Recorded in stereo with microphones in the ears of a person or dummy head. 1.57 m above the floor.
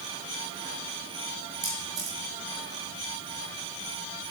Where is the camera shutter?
45° right (ahead or behind), 6 m.